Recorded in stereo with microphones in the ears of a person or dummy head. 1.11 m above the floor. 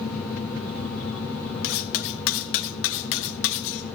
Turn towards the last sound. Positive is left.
turn(degrees=60)  # may be behind; listen again after turning